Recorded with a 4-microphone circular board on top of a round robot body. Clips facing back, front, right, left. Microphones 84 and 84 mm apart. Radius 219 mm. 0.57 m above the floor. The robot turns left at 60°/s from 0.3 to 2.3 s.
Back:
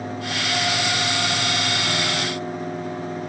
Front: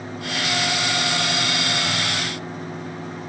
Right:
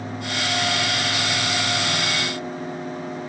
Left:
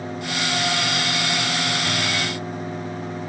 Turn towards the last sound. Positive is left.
No sound to turn to.